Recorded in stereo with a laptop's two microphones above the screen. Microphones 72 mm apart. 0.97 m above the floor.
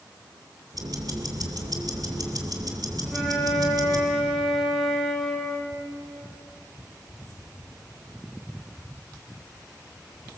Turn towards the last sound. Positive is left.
turn(degrees=-5)  # may be behind; listen again after turning